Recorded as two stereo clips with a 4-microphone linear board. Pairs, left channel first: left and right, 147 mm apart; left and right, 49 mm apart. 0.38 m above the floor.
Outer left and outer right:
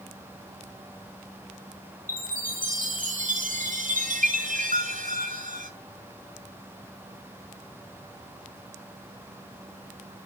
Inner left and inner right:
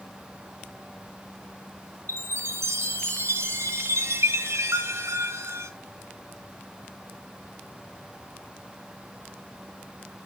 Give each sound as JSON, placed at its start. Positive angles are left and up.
{"t": 2.1, "sound": "a chime", "side_deg": -70, "distance_m": 2.5}